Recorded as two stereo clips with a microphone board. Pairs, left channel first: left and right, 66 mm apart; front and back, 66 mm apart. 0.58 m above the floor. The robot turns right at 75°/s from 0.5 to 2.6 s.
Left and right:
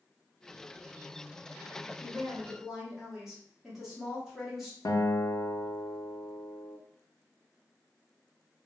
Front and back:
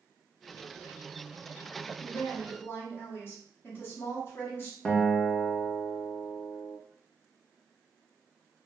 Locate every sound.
2.0 s a woman speaking: 55° right, 1.3 m; by 4.8 s 10° right, 1.3 m
4.8 s a guitar: 75° left, 0.6 m